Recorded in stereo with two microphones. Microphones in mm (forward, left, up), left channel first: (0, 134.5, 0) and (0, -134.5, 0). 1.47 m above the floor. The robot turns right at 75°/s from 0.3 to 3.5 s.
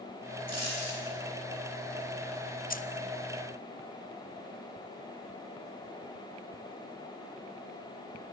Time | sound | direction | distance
0.5 | a dropped coin | 65° left | 9.5 m
2.7 | keys jangling | 35° left (ahead or behind) | 0.7 m